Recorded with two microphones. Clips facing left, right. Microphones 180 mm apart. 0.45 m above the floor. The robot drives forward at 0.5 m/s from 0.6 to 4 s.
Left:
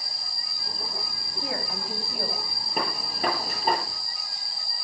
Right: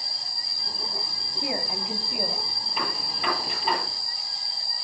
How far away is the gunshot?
About 9.5 m.